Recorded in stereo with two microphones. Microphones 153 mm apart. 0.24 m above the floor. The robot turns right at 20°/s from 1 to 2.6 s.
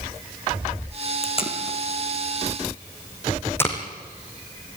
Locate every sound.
1.2 s tape being pulled: 45° left (ahead or behind), 3 m; by 3.8 s 15° left (ahead or behind), 3 m